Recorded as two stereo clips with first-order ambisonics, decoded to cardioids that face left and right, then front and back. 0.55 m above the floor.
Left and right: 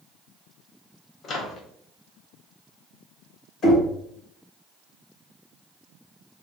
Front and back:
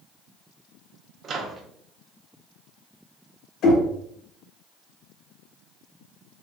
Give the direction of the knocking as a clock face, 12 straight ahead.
11 o'clock.